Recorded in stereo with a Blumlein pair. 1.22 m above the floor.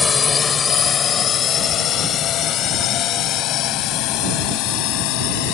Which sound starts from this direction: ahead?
A drone, at 0.0 s.